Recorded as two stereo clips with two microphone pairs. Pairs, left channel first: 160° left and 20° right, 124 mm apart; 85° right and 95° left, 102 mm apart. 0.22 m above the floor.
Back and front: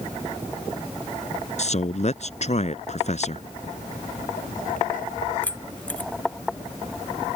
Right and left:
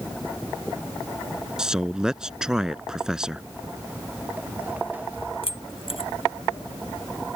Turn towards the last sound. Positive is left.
turn(degrees=-120)